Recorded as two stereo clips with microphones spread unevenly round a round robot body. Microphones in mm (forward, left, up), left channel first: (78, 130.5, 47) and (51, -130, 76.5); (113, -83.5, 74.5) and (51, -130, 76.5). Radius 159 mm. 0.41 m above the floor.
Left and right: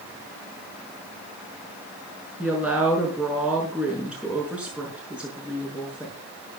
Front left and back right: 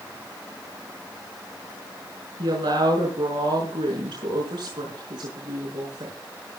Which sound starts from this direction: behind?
A woman speaking, at 2.4 s.